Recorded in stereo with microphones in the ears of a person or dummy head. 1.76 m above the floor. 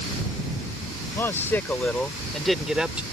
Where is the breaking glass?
I don't hear breaking glass.